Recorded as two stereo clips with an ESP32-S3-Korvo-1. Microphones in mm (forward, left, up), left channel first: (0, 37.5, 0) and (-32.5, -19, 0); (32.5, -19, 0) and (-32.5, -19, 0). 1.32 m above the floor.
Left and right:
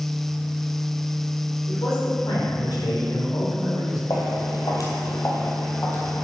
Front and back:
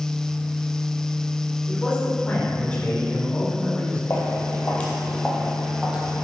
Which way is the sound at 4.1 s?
50° left.